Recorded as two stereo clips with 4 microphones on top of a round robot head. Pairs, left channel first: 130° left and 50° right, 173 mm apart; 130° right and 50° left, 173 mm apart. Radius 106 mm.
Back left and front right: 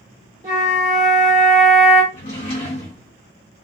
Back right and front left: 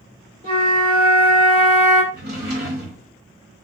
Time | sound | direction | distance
0.4 | a flute | 15° left | 1.8 m
2.1 | a drawer | 85° left | 1.4 m